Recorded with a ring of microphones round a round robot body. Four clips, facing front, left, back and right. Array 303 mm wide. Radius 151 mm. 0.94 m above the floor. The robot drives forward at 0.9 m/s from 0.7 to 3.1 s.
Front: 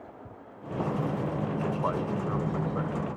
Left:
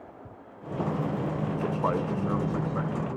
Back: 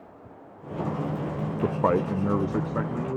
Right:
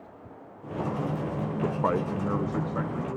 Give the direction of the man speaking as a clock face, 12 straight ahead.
6 o'clock.